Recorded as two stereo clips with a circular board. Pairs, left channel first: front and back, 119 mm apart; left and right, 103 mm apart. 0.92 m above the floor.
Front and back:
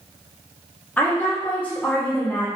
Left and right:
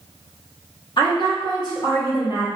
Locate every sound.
1.0 s a woman speaking: 75° left, 1.1 m